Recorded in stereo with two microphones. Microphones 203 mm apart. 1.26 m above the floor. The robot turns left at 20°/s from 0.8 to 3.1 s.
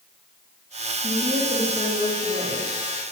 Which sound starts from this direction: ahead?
A woman speaking, at 1.0 s.